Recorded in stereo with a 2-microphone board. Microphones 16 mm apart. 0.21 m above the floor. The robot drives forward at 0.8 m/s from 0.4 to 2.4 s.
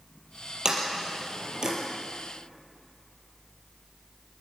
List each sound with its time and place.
0.7 s a sliding door: 45° right (ahead or behind), 5 m; by 1.7 s 55° right (ahead or behind), 4.5 m